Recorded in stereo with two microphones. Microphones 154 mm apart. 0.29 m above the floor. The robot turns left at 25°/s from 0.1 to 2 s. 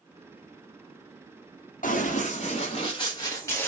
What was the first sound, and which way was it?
Running footsteps, 65° left (ahead or behind).